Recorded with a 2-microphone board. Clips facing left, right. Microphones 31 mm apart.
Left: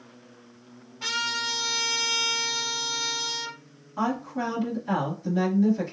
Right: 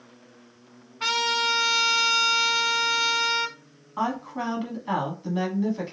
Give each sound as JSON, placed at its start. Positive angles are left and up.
{"t": 1.0, "sound": "a trumpet", "side_deg": -50, "distance_m": 0.8}
{"t": 4.0, "sound": "a woman speaking", "side_deg": -30, "distance_m": 1.2}